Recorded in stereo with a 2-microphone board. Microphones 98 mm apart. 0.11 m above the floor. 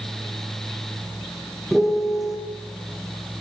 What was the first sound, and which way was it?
A piano, centre (ahead or behind).